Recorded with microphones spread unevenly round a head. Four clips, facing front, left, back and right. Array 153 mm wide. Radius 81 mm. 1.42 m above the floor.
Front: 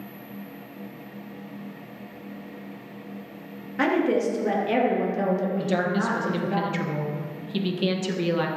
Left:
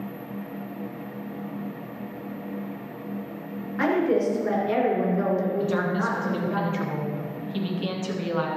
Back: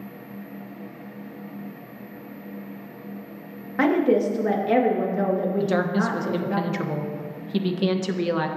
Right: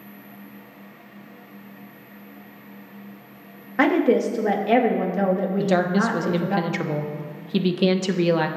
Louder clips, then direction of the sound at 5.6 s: Right 4 dB, back 2 dB; 100° right.